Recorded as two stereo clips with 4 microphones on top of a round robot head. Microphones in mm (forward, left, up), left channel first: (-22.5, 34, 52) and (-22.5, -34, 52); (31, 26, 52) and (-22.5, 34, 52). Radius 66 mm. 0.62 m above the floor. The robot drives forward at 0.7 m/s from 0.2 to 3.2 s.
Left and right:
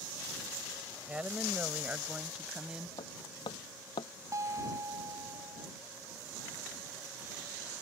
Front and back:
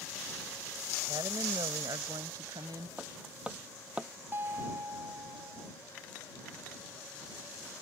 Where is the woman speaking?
160° right; by 2.9 s 165° right.